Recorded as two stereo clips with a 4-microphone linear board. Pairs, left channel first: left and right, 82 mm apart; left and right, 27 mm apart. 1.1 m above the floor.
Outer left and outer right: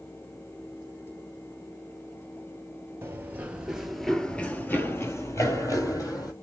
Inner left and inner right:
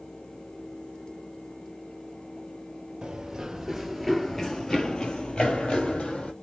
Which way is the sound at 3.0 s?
25° right (ahead or behind).